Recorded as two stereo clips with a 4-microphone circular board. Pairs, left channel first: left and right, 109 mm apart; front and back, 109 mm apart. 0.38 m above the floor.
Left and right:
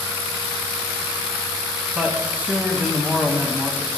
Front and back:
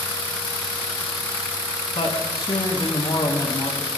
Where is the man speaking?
15° right, 2 m.